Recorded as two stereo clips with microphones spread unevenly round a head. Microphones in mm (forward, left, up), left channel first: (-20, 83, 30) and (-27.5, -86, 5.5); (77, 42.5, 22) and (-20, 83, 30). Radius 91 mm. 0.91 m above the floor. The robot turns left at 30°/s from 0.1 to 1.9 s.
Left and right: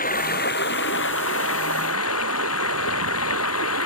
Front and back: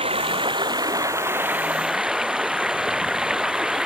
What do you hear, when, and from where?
0.0 s running water: 130° left; by 3.9 s 75° left